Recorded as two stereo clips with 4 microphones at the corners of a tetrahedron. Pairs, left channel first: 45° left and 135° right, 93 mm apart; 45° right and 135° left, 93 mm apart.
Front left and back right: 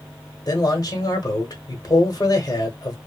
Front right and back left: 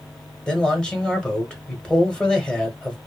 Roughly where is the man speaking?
Ahead left.